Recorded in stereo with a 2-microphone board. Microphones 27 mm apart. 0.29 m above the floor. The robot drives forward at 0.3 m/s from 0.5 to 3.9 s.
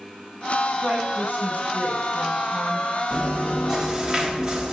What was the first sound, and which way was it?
A woman speaking, 50° right (ahead or behind).